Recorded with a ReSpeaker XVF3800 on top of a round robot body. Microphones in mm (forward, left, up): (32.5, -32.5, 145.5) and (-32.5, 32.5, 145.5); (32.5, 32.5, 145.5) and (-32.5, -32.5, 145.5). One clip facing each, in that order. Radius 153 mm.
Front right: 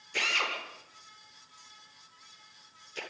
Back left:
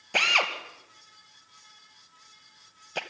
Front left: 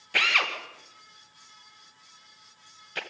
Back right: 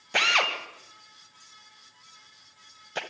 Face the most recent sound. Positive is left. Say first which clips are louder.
# back left 6 dB, back right 2 dB
turn(degrees=160)